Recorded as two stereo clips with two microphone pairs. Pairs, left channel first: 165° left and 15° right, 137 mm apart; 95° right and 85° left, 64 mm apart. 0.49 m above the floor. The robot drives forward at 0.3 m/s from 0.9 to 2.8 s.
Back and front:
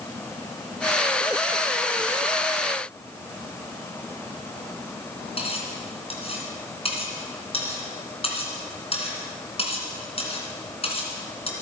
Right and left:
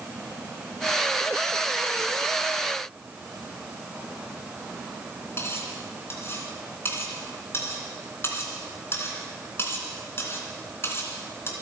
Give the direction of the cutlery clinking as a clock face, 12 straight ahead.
5 o'clock.